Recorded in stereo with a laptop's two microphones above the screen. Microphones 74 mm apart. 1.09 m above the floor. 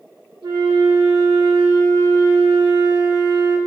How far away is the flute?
About 3 m.